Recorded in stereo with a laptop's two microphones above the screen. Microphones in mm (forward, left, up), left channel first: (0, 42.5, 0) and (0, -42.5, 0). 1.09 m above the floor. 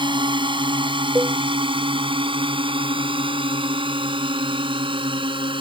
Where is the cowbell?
25° right (ahead or behind).